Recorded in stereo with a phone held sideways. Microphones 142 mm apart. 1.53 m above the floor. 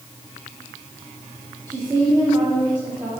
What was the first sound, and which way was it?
A woman speaking, 30° right (ahead or behind).